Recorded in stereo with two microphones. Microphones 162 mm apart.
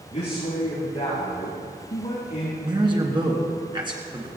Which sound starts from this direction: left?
A man speaking, at 0.1 s.